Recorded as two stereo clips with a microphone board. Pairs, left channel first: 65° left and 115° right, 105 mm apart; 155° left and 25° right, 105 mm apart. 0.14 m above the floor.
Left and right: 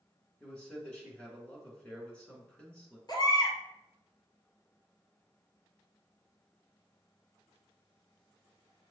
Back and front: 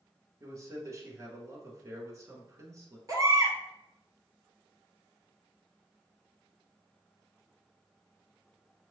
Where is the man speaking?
Straight ahead, 1.3 m.